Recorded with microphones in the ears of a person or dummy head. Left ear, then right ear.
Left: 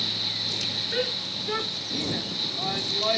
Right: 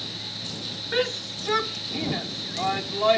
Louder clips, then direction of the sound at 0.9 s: Right 1 dB; 35° right (ahead or behind).